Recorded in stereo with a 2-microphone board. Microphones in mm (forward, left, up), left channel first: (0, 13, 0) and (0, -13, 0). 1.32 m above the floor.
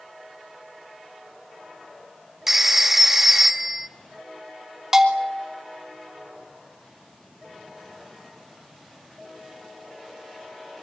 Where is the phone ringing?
10° right (ahead or behind), 1.2 m.